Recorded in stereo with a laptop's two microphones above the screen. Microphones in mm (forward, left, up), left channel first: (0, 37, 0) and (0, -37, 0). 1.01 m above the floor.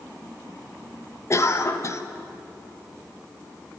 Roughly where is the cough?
Left.